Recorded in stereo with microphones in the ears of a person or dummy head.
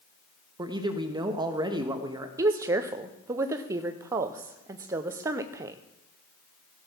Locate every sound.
0.6 s a man speaking: 20° right (ahead or behind), 1.3 m
2.4 s a woman speaking: 20° right (ahead or behind), 0.5 m